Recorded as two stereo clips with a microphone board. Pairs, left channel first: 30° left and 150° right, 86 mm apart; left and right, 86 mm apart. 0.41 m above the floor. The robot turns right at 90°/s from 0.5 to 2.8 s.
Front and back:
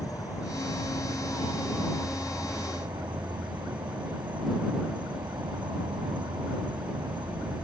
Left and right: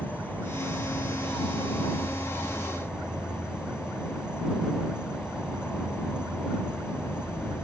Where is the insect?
15° right; by 7.7 s 170° right.